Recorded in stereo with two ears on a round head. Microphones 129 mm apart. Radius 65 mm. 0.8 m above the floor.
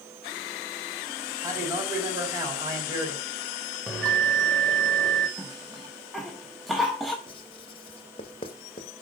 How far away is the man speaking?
About 4.5 m.